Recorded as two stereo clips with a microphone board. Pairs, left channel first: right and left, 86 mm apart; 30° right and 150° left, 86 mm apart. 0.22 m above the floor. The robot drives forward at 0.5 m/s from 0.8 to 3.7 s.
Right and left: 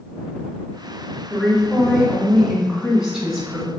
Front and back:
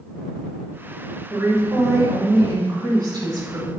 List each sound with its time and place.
1.3 s a woman speaking: 170° left, 1.3 m; by 3.7 s 175° left, 2 m